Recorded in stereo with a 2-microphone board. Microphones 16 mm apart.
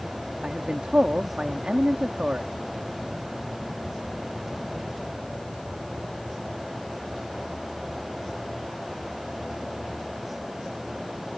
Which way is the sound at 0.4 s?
80° right.